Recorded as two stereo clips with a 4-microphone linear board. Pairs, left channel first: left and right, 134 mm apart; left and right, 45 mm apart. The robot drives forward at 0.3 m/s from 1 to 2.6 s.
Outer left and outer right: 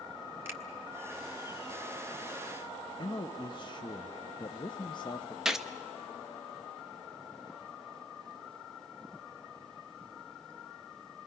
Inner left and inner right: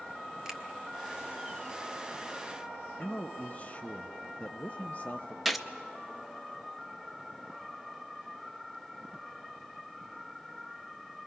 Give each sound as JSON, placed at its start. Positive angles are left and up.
{"t": 0.5, "sound": "a finger snap", "side_deg": -20, "distance_m": 1.7}
{"t": 3.0, "sound": "a man speaking", "side_deg": 35, "distance_m": 0.7}
{"t": 5.5, "sound": "a gunshot", "side_deg": -5, "distance_m": 0.8}